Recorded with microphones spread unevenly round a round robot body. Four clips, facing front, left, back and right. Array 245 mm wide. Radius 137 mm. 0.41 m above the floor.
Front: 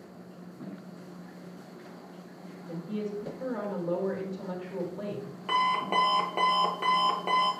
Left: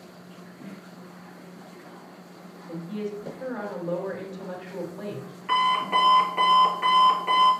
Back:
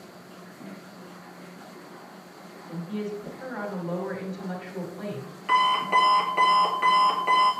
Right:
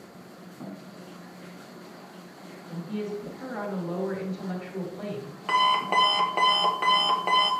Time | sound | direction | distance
2.7 | a woman speaking | 30° left | 3 m
5.5 | an alarm clock | 45° right | 1.4 m